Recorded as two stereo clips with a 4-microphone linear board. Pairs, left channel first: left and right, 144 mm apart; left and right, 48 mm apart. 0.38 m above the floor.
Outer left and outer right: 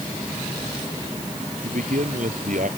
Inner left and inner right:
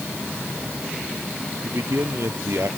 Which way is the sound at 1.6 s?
65° right (ahead or behind).